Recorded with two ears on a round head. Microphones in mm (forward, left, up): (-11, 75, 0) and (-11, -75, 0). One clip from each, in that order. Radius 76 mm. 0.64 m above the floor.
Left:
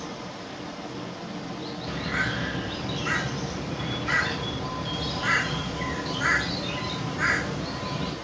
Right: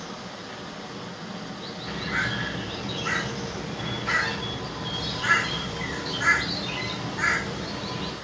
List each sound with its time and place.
0.0 s running water: 35° right (ahead or behind), 1.8 m
1.9 s a bird: 30° right (ahead or behind), 1.9 m